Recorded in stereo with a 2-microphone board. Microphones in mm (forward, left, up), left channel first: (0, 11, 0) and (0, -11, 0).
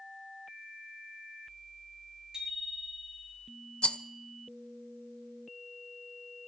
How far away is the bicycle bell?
About 7 m.